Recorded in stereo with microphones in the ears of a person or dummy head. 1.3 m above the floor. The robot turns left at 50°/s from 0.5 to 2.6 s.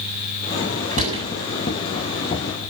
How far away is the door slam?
About 7.5 m.